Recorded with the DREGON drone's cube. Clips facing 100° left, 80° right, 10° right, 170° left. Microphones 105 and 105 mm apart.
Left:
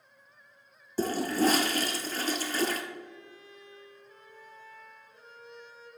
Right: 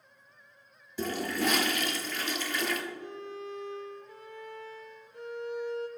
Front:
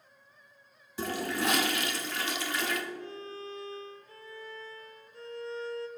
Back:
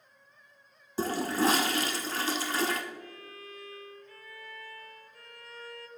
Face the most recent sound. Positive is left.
turn(degrees=-75)